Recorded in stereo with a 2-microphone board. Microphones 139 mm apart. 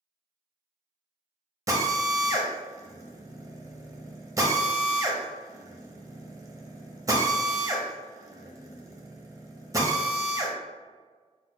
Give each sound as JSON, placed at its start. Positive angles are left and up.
{"t": 1.7, "sound": "a drill", "side_deg": -25, "distance_m": 0.7}